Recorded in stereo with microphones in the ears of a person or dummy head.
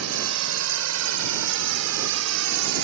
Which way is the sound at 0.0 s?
85° right.